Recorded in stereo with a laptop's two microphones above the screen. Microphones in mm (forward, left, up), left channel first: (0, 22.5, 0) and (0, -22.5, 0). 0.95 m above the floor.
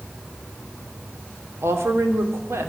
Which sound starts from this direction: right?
A woman speaking, at 1.6 s.